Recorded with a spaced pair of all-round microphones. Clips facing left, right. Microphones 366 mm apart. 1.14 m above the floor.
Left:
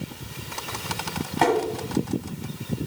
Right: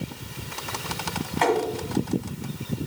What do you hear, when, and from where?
1.4 s tapping: 55° left (ahead or behind), 1.5 m